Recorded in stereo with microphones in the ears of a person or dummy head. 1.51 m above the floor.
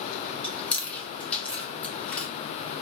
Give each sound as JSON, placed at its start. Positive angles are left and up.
{"t": 0.4, "sound": "chewing", "side_deg": 5, "distance_m": 0.9}